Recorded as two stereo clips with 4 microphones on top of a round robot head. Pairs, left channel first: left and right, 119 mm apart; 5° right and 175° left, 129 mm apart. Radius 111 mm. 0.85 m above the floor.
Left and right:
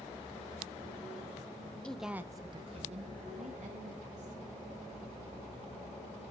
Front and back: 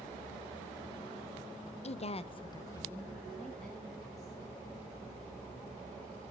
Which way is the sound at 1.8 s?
10° left.